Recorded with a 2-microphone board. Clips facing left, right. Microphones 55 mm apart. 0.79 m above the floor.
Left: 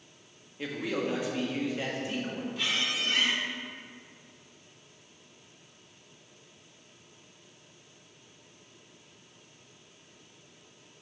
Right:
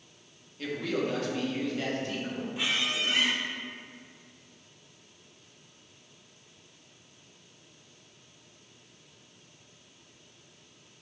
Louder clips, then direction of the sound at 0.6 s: Right 1 dB; 15° left (ahead or behind).